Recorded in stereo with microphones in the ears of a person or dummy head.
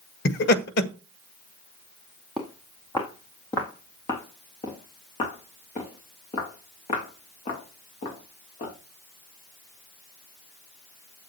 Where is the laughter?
60° left (ahead or behind), 1.4 m.